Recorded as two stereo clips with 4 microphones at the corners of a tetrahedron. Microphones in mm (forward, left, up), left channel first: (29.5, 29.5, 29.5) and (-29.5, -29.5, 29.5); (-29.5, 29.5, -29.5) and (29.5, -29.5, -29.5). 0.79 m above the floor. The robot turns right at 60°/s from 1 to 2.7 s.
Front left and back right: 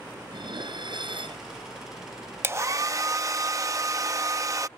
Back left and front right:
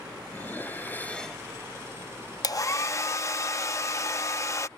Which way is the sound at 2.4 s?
165° left.